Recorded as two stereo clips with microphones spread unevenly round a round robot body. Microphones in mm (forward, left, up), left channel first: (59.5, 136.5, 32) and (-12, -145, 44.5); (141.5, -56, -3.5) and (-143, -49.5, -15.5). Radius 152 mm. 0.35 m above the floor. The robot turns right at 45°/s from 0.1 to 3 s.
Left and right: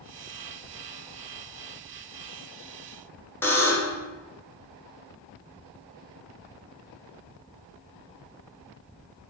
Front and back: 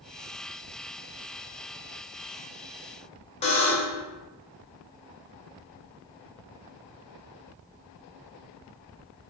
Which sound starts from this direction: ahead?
A buzzer, at 3.4 s.